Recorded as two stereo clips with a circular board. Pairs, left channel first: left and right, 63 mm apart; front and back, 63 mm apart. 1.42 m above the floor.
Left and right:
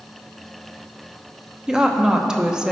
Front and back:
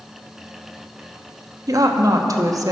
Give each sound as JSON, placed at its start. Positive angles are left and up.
{"t": 1.7, "sound": "a woman speaking", "azimuth_deg": -165, "distance_m": 0.8}